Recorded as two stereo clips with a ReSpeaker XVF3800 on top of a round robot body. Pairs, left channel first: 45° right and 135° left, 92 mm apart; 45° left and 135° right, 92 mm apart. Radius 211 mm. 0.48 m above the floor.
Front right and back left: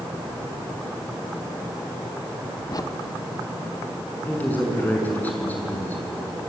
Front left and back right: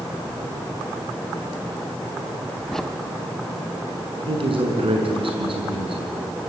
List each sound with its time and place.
2.7 s a crack: 40° right, 1.7 m
4.3 s a man speaking: 115° right, 6 m